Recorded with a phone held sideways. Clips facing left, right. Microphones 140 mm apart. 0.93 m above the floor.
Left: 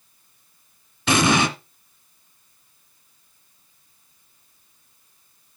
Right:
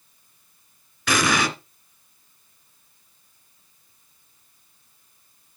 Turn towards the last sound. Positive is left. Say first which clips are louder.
# left 3 dB
turn(degrees=25)  # may be behind; listen again after turning